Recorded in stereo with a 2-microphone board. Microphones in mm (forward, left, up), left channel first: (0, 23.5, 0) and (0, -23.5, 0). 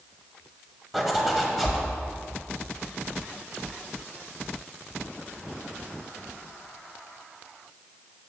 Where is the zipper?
Centre (ahead or behind), 1.1 m.